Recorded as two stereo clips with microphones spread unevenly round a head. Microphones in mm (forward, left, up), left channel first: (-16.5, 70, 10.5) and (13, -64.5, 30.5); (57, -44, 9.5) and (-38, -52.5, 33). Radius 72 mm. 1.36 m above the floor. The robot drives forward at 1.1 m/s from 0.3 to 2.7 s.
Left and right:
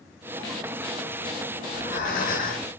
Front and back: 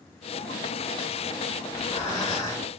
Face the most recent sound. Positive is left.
turn(degrees=75)